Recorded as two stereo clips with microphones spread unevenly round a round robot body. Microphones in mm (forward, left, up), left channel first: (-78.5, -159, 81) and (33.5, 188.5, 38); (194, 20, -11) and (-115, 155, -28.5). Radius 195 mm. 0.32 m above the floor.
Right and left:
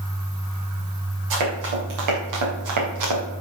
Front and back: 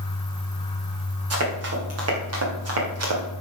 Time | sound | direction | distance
1.3 | running footsteps | 110° left | 6.5 m